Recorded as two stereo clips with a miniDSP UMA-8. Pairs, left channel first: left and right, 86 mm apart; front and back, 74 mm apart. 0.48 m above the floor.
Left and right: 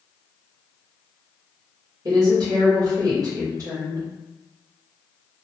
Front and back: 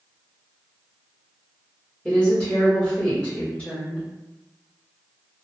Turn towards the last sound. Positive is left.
turn(degrees=-75)